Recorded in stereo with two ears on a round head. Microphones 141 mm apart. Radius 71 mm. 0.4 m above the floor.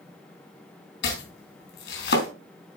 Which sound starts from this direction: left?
Chopping, at 1.0 s.